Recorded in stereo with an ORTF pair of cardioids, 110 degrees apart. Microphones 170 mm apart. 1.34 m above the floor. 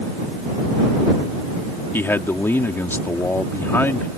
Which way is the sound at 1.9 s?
15° left.